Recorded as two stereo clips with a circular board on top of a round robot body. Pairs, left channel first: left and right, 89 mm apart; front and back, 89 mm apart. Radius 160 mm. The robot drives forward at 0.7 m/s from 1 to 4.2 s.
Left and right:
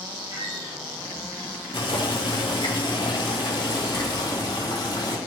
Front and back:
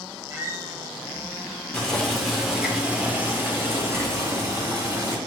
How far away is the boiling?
About 2 m.